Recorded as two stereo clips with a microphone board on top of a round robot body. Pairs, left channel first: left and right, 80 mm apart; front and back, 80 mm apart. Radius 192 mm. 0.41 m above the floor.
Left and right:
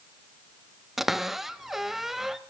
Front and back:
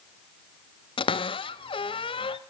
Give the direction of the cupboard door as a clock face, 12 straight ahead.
12 o'clock.